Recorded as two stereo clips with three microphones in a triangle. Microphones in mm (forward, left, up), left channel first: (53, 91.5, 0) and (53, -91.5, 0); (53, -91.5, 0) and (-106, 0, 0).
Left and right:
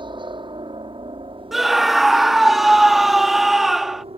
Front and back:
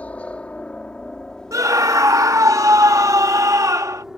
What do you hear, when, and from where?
0.0 s a helicopter: 105° right; by 4.2 s 125° right
1.5 s a scream: 175° right